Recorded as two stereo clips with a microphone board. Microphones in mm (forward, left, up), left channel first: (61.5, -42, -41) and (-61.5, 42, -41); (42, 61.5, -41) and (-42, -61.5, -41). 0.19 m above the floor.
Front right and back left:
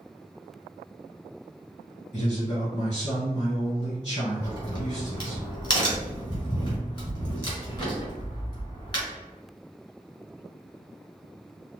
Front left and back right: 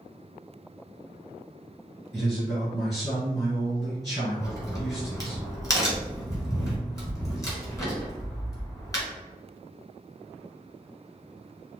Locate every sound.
2.1 s a man speaking: straight ahead, 1.6 m
4.4 s a crack: straight ahead, 1.5 m